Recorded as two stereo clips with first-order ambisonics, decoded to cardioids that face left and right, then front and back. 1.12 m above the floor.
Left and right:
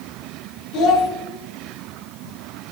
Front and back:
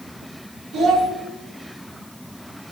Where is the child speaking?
130° left, 2.5 m.